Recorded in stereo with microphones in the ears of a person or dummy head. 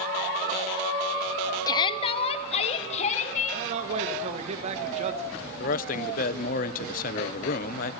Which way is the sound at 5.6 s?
55° left (ahead or behind).